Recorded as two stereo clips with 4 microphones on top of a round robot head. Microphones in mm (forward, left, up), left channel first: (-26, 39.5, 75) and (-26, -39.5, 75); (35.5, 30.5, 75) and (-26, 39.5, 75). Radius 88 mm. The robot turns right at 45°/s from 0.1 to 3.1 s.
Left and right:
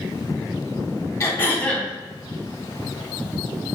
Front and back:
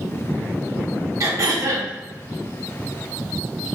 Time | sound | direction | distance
1.2 | throat clearing | 140° left | 0.7 m